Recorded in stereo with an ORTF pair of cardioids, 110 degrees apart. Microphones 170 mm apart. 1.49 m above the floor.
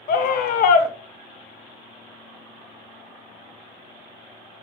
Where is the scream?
60° left, 0.7 m.